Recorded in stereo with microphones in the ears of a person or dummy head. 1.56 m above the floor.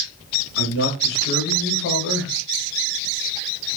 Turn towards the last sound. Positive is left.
turn(degrees=75)  # may be behind; listen again after turning